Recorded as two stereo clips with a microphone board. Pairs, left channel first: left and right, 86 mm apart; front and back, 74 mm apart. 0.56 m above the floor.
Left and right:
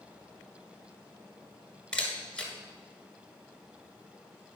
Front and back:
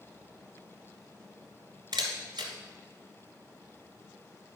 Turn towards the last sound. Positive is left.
turn(degrees=170)